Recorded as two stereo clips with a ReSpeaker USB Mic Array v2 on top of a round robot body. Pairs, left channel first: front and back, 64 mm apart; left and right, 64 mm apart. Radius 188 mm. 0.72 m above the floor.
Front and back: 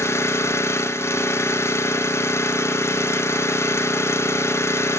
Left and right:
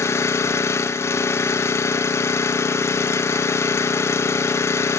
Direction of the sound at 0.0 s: 45° left.